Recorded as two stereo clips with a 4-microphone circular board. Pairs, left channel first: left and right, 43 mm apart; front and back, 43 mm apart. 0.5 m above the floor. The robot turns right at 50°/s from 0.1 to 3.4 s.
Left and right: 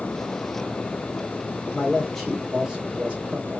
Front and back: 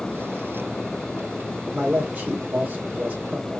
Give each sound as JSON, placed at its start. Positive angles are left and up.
{"t": 1.7, "sound": "a man speaking", "azimuth_deg": 150, "distance_m": 1.5}